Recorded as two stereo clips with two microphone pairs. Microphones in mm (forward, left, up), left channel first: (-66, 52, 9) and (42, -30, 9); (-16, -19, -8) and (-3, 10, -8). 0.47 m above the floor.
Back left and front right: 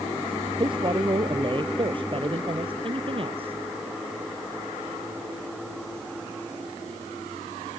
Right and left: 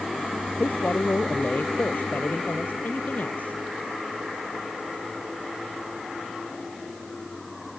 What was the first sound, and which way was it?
A man speaking, 90° right.